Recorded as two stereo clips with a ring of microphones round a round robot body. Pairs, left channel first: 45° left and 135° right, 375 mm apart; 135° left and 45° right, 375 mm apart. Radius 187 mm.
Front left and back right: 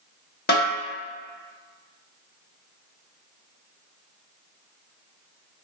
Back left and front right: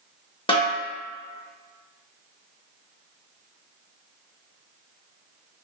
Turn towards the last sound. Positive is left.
turn(degrees=75)